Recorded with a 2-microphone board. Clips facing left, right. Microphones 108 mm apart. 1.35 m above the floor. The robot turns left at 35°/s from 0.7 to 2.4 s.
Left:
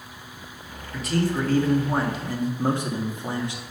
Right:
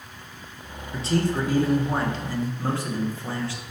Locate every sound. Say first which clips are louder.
0.9 s a man speaking: even; 150° right, 1.1 m; by 3.6 s 160° left, 1.1 m